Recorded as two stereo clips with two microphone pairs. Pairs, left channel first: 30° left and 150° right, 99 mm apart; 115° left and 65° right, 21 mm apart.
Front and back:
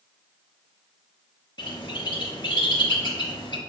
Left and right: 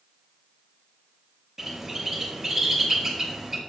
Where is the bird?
5° left, 0.8 m.